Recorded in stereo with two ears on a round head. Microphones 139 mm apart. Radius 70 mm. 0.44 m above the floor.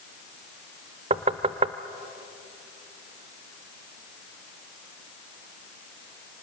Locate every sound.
1.1 s knocking: 35° right (ahead or behind), 0.7 m